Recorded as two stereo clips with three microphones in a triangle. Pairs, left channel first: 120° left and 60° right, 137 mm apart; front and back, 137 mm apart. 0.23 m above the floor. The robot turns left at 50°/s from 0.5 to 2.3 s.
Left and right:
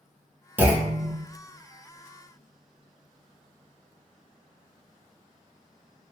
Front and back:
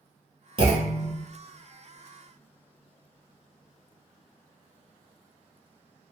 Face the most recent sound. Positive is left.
turn(degrees=140)